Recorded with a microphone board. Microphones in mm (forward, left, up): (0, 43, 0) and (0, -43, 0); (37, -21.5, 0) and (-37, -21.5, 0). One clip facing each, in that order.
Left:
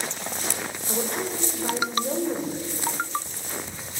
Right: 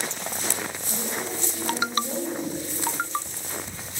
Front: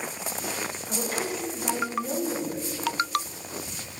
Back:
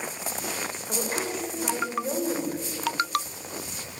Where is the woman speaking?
115° left, 5 m.